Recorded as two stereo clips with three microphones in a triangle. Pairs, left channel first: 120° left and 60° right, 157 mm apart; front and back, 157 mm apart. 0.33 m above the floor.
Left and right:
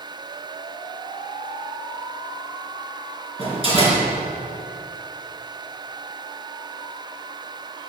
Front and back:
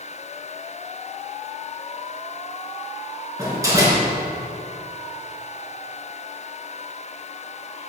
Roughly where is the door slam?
Right.